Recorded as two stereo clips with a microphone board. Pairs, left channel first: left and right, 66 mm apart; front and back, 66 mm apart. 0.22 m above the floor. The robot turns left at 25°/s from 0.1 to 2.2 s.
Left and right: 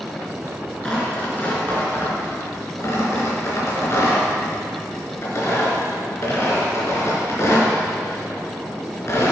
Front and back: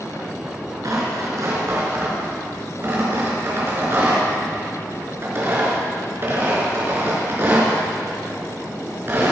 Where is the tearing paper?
165° left, 3.5 m; by 9.3 s 130° left, 3.5 m.